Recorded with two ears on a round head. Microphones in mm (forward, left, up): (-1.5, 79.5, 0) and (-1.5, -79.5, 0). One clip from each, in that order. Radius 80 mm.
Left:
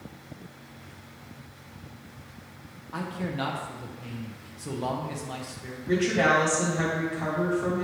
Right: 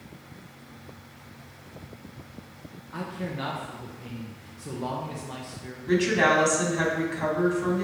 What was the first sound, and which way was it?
A man speaking, 15° left (ahead or behind).